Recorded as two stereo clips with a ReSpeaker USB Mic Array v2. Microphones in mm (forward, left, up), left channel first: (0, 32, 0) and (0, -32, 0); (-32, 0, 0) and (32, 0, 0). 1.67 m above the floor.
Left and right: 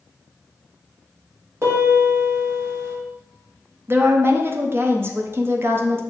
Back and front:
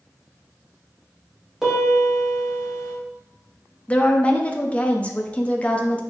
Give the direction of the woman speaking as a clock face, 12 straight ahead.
4 o'clock.